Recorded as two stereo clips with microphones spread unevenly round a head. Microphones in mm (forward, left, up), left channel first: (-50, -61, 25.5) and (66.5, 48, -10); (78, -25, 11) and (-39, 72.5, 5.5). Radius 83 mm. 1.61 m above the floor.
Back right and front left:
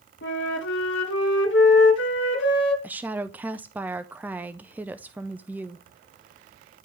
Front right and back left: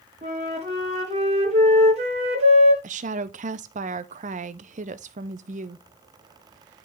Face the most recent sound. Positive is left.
turn(degrees=135)